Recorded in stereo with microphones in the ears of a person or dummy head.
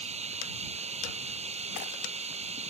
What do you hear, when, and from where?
0.0 s running water: 30° right (ahead or behind)